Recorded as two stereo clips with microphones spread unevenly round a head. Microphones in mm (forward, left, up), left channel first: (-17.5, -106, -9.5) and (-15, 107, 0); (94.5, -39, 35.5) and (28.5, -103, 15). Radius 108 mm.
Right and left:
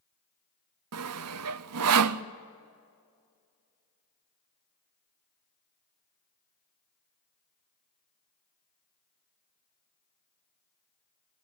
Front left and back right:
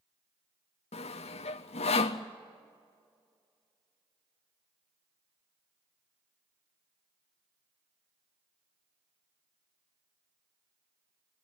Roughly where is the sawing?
Ahead left.